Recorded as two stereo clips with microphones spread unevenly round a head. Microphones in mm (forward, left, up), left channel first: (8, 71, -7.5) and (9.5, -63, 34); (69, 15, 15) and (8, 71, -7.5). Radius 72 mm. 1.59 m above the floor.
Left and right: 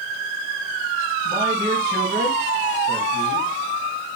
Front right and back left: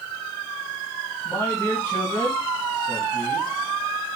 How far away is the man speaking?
About 1.7 m.